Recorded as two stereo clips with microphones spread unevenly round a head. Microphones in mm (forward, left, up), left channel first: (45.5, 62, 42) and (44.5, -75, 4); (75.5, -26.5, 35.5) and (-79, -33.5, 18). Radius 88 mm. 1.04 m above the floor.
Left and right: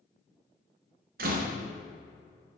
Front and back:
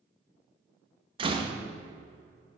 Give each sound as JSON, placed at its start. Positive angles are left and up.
{"t": 1.2, "sound": "a door slam", "azimuth_deg": -120, "distance_m": 0.9}